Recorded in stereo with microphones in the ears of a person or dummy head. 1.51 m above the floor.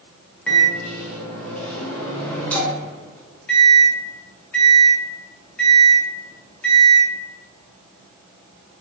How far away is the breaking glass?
No breaking glass in this recording.